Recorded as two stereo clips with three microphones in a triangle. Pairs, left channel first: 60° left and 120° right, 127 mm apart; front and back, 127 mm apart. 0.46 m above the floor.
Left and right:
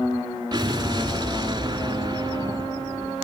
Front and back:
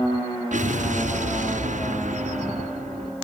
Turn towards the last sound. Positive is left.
turn(degrees=180)